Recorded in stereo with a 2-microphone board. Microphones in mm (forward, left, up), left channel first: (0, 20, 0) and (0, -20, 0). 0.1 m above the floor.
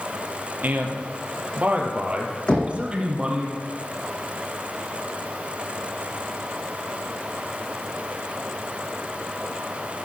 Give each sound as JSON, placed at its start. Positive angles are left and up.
{"t": 0.6, "sound": "a man speaking", "side_deg": -50, "distance_m": 2.5}
{"t": 2.5, "sound": "knocking", "side_deg": 25, "distance_m": 3.5}